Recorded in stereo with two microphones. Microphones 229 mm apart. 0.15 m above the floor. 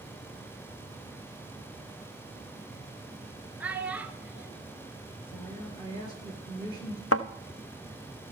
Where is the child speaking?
5° right (ahead or behind), 1.3 m.